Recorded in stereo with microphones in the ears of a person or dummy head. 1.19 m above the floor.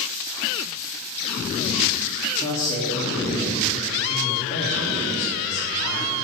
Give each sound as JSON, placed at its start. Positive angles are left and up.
{"t": 2.4, "sound": "a man speaking", "side_deg": 25, "distance_m": 3.0}